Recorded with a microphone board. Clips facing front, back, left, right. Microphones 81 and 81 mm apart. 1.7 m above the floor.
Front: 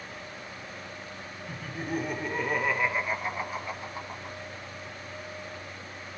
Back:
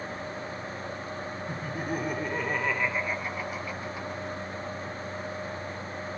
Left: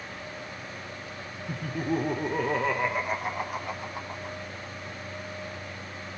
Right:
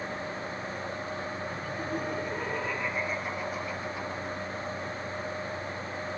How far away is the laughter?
About 2 m.